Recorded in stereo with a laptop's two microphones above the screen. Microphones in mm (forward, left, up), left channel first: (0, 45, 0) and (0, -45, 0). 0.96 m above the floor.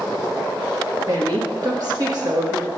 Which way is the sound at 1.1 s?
45° right (ahead or behind).